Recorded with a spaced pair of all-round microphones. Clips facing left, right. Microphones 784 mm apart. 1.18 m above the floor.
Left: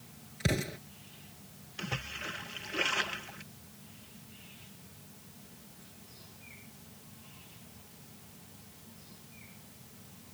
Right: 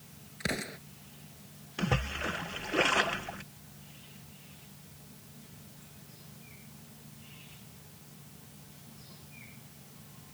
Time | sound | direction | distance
0.4 | an explosion | 60° left (ahead or behind) | ?
1.8 | a splash | 75° right (ahead or behind) | ?